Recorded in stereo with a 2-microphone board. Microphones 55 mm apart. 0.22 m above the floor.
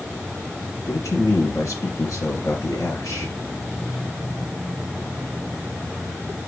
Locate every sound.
0.9 s a man speaking: 70° left (ahead or behind), 3.5 m